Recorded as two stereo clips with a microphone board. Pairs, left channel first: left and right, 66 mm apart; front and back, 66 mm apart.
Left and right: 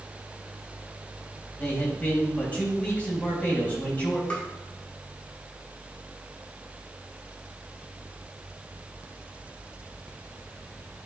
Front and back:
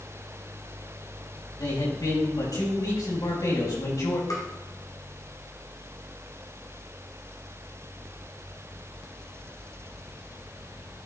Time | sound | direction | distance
1.6 | a man speaking | 25° left | 4 m
4.3 | tapping | 20° left | 1.6 m